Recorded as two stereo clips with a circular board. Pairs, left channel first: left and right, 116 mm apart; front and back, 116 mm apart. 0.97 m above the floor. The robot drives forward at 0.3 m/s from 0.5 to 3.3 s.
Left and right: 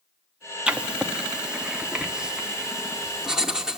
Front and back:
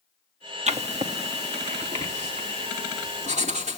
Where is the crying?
No crying in this recording.